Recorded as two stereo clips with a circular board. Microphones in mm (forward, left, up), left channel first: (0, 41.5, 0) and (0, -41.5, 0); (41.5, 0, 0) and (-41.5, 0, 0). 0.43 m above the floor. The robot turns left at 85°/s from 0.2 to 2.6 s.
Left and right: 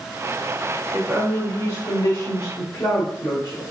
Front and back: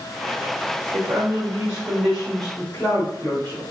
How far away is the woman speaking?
About 1.4 m.